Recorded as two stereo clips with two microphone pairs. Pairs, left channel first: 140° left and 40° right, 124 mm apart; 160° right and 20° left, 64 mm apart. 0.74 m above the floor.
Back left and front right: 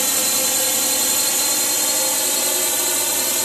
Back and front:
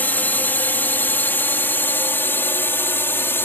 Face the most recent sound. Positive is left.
turn(degrees=-130)